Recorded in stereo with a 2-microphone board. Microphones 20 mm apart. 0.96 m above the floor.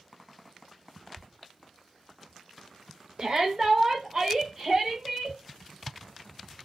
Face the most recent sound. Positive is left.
turn(degrees=-10)  # may be behind; listen again after turning